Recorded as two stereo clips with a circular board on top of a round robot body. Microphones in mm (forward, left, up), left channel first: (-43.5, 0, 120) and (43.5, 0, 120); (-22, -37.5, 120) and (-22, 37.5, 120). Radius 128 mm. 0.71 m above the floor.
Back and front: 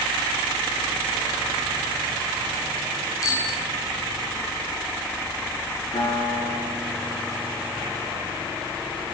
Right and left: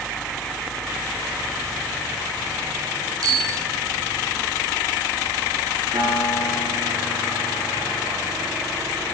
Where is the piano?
135° left, 7.5 m.